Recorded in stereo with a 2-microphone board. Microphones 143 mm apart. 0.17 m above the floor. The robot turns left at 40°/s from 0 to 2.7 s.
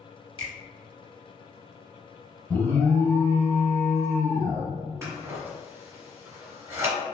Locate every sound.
0.4 s a finger snap: 35° left (ahead or behind), 1.0 m; by 0.5 s 30° left (ahead or behind), 1.0 m
2.5 s an alarm: 15° left (ahead or behind), 1.3 m; by 4.7 s 20° left (ahead or behind), 1.3 m
5.0 s scissors: 20° right (ahead or behind), 1.4 m